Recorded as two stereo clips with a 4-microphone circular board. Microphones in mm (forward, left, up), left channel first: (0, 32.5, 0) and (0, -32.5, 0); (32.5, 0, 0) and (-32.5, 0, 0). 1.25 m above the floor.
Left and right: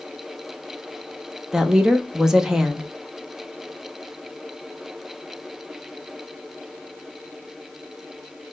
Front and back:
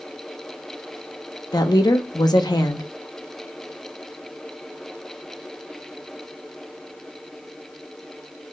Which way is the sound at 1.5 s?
10° right.